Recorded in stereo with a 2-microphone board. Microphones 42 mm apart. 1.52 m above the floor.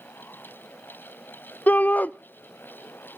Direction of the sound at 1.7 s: 45° left (ahead or behind).